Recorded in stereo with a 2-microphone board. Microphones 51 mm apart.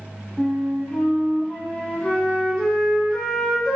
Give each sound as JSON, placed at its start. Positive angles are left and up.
{"t": 0.4, "sound": "a flute", "side_deg": 15, "distance_m": 0.8}